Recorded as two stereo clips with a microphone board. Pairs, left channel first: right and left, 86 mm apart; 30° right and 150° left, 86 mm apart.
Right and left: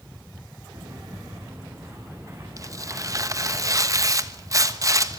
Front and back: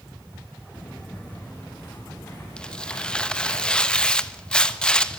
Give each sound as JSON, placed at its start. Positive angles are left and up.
{"t": 0.7, "sound": "footsteps", "azimuth_deg": 45, "distance_m": 6.0}
{"t": 2.6, "sound": "tearing paper", "azimuth_deg": 45, "distance_m": 1.1}